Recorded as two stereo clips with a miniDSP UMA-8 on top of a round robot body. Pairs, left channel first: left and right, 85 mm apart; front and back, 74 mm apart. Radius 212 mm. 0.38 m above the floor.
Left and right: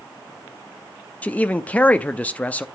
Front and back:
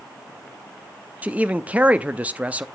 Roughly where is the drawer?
I don't hear a drawer.